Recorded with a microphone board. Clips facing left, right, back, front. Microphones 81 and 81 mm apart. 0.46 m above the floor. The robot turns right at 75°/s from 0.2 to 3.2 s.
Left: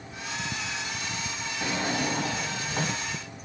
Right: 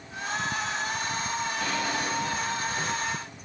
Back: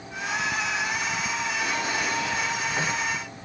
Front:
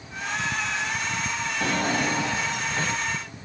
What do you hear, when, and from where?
1.6 s a drawer: 15° left, 0.6 m; by 3.1 s 125° left, 0.6 m